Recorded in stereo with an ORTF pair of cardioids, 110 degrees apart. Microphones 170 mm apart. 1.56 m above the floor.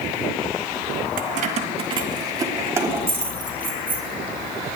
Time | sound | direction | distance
1.2 | keys jangling | 60° right | 1.5 m